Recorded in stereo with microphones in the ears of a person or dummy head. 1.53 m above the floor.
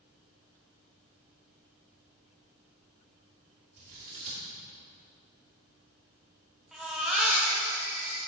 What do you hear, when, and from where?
3.8 s scissors: 55° right (ahead or behind), 2.5 m
6.7 s a baby crying: 5° right (ahead or behind), 1.5 m